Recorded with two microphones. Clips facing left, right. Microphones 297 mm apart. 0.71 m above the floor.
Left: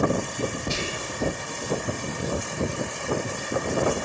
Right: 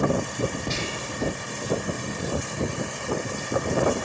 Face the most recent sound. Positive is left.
turn(degrees=10)  # may be behind; listen again after turning